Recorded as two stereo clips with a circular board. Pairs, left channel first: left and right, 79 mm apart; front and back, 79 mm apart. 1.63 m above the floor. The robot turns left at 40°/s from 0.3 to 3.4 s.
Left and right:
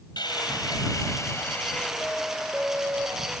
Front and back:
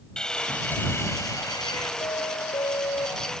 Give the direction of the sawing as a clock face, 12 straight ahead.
9 o'clock.